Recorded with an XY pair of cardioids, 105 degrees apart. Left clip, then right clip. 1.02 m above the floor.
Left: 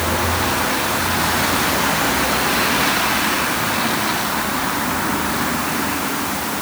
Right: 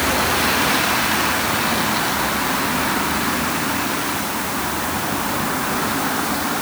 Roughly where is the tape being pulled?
I don't hear tape being pulled.